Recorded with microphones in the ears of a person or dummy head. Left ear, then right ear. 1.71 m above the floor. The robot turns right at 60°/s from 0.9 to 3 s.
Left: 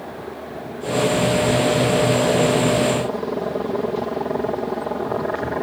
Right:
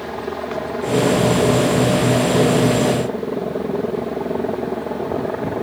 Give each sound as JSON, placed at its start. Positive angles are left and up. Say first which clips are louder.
{"t": 0.0, "sound": "a helicopter", "louder": "right 6 dB", "azimuth_deg": -70}